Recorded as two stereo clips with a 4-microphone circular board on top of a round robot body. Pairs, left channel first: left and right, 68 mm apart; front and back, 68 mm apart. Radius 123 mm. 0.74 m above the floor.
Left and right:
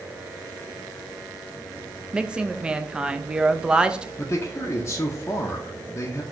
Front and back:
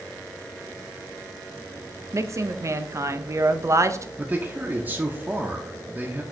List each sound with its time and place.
2.1 s a woman speaking: 165° right, 0.6 m
4.2 s a man speaking: 125° left, 0.8 m